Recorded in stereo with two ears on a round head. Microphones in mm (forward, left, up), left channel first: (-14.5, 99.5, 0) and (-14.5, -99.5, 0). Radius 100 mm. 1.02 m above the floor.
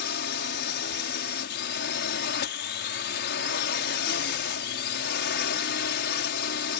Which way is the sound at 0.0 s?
50° left (ahead or behind).